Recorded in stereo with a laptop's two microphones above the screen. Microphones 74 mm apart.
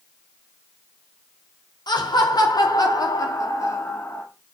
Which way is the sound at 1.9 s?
75° left (ahead or behind).